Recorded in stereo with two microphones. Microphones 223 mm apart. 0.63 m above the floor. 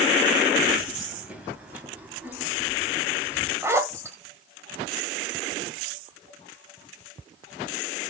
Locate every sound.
0.7 s keys jangling: 5° right (ahead or behind), 2.5 m; by 3.5 s 10° right (ahead or behind), 4 m
3.6 s a zipper: 10° right (ahead or behind), 1.2 m